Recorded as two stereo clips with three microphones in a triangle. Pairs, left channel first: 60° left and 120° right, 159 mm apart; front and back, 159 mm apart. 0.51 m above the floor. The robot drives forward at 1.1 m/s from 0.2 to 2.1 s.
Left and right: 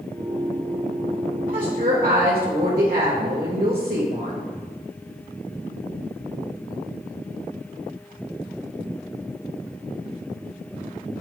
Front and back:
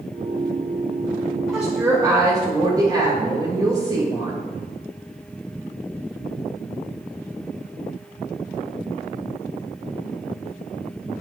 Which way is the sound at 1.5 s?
90° right.